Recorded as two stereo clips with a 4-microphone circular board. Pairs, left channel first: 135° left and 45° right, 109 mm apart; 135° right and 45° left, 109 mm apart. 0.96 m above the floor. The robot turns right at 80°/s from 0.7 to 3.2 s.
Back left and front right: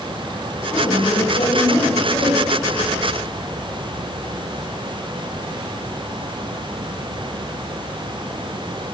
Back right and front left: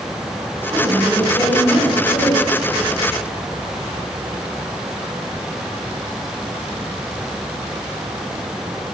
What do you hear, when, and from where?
0.7 s a woman speaking: 115° left, 5.5 m; by 2.4 s 110° right, 5.5 m